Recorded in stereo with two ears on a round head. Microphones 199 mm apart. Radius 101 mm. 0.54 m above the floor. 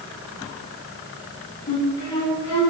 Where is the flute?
20° left (ahead or behind), 4 m.